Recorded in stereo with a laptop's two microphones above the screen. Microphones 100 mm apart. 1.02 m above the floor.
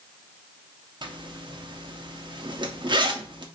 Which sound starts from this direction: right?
A zipper, at 1.0 s.